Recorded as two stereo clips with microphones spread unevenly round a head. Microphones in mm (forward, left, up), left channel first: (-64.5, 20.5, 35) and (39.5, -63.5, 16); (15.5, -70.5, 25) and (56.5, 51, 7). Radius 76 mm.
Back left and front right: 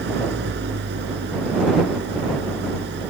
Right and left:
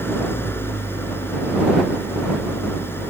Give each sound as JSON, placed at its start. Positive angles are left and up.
{"t": 0.0, "sound": "an engine running", "azimuth_deg": -40}